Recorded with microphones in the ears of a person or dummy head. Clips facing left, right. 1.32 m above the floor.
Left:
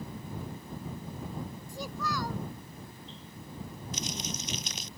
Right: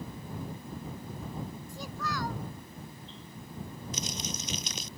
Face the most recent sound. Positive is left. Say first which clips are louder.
# left 1 dB
turn(degrees=-80)